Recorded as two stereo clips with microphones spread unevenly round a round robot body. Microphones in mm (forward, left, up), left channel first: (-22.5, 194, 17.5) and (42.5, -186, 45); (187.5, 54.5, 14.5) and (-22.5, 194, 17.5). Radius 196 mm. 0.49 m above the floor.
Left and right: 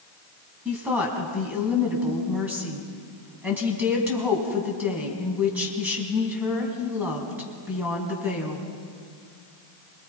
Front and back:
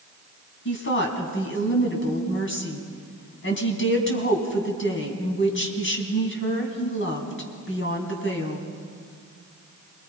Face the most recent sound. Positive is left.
turn(degrees=5)